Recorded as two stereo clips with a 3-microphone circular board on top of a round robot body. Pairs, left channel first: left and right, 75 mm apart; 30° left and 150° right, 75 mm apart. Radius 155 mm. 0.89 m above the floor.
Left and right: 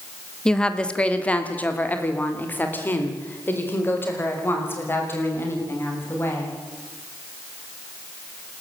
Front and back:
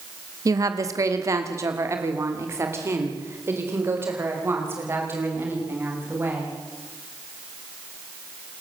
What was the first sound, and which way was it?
A woman speaking, 170° left.